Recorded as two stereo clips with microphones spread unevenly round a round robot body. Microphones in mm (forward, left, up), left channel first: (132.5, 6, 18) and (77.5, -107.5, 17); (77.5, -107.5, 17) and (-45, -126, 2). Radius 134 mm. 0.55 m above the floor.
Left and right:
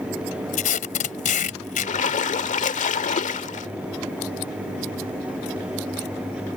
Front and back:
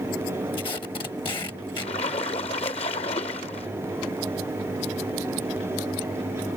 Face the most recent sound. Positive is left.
turn(degrees=70)